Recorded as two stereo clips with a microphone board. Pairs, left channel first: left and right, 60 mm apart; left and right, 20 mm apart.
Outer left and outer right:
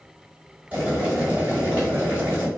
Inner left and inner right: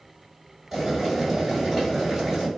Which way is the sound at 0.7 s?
25° right (ahead or behind).